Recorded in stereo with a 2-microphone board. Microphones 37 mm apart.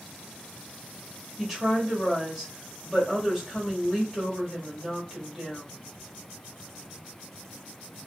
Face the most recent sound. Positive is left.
turn(degrees=5)  # may be behind; listen again after turning